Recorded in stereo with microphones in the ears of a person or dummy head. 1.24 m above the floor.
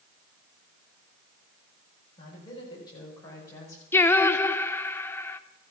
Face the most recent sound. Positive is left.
turn(degrees=20)  # may be behind; listen again after turning